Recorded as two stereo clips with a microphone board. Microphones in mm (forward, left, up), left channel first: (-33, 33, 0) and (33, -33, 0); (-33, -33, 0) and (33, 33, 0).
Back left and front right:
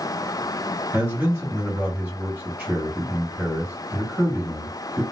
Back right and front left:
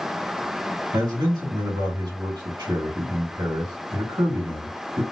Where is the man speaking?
20° left, 2.5 m.